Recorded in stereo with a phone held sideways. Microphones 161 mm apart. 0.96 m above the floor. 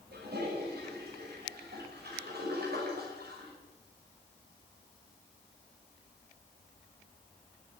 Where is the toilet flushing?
70° right (ahead or behind), 5.5 m.